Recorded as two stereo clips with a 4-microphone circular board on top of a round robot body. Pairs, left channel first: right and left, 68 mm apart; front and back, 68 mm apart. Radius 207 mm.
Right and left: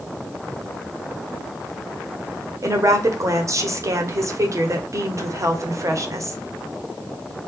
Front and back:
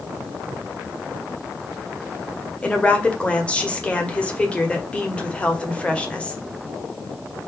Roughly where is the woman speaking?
Left.